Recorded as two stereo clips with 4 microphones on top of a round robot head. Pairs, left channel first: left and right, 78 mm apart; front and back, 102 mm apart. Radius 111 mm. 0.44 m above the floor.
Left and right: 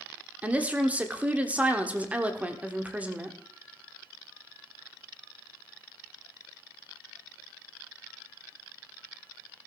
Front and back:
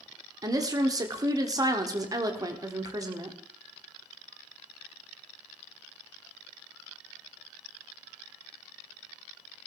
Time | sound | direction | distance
0.4 | a woman speaking | 155° right | 1.4 m